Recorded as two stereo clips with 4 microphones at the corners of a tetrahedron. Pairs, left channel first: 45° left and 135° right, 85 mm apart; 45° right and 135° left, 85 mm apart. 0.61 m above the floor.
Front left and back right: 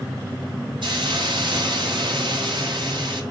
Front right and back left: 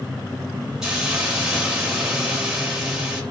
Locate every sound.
0.8 s a hiss: 145° right, 3 m